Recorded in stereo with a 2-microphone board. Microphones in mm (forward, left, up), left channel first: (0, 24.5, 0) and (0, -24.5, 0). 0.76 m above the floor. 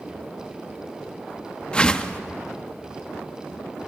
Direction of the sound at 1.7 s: 20° left (ahead or behind).